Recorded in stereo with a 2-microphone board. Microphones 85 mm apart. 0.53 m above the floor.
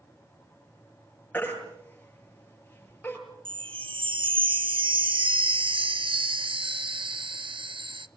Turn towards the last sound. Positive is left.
turn(degrees=-85)